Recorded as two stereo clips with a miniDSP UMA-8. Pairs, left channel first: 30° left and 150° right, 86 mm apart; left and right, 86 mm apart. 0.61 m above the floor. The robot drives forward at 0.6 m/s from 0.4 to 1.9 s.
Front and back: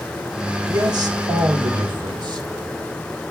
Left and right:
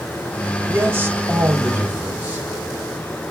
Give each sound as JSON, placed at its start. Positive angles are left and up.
{"t": 0.7, "sound": "a man speaking", "azimuth_deg": -145, "distance_m": 1.6}